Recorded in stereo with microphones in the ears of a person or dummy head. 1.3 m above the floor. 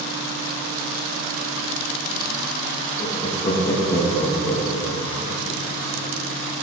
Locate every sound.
3.0 s laughter: 30° left (ahead or behind), 2.5 m; by 5.4 s 10° right (ahead or behind), 1.7 m